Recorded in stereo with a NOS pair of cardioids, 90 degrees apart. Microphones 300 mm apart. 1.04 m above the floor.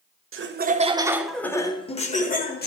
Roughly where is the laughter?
Ahead right.